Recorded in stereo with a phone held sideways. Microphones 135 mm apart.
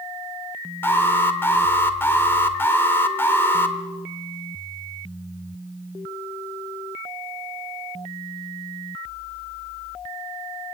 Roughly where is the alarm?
Centre.